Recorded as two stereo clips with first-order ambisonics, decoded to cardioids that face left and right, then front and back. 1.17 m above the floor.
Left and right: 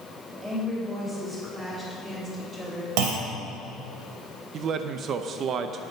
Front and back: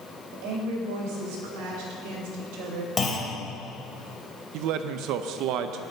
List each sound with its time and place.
0.3 s a woman speaking: 170° right, 5.5 m; by 2.9 s 160° right, 3.5 m
3.0 s a clunk: 80° right, 3 m
4.5 s a man speaking: 145° right, 0.6 m